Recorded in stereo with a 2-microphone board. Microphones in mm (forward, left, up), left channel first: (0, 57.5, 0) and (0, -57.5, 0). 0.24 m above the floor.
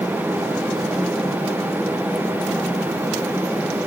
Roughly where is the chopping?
No chopping in this recording.